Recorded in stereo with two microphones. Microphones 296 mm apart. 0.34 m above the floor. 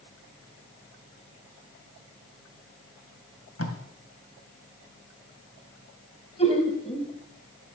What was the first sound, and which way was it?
Tape being pulled, 55° left (ahead or behind).